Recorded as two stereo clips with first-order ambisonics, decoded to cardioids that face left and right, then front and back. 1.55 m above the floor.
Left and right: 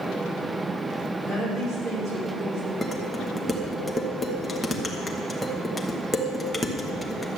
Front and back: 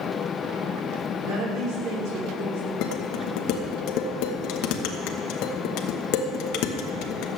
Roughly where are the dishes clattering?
Ahead.